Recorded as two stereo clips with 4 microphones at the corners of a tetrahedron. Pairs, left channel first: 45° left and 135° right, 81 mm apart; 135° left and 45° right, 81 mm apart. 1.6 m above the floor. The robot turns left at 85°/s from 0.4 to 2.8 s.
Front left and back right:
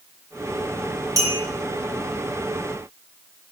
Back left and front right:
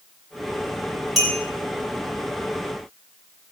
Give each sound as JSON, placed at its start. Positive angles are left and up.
{"t": 1.2, "sound": "a clink", "azimuth_deg": -135, "distance_m": 1.0}